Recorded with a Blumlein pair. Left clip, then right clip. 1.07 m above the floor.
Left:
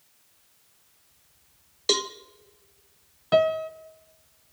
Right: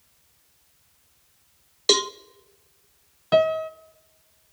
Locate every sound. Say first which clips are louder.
1.9 s a cowbell: right 4 dB; 15° right, 0.5 m
3.3 s a piano: right 2 dB; 5° right, 0.6 m